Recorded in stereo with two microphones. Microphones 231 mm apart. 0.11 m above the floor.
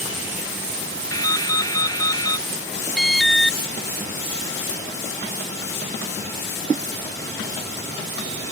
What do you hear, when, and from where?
1.1 s dripping: 15° left (ahead or behind)
3.0 s an alarm: centre (ahead or behind)